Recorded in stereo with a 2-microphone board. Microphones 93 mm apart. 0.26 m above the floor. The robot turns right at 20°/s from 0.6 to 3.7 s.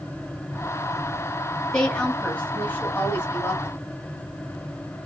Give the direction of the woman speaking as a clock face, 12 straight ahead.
12 o'clock.